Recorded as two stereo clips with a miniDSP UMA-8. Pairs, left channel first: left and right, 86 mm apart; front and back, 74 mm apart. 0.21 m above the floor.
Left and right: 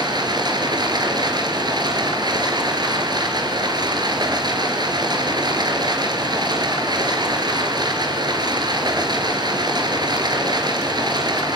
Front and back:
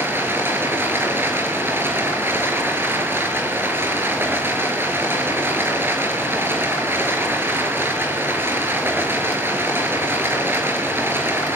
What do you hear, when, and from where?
0.0 s running water: 120° right, 4 m